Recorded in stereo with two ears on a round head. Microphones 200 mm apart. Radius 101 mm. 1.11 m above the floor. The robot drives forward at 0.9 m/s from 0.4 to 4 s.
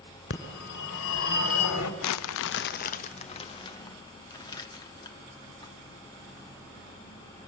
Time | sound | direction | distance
0.3 | a phone ringing | 45° left (ahead or behind) | 3 m
2.0 | crumpling | 80° left | 0.6 m